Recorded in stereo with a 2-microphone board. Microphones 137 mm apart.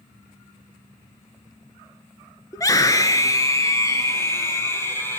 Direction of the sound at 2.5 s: 25° left (ahead or behind).